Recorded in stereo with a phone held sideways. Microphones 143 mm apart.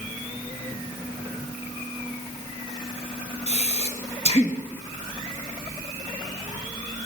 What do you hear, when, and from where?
3.5 s breathing: 50° left (ahead or behind), 1.7 m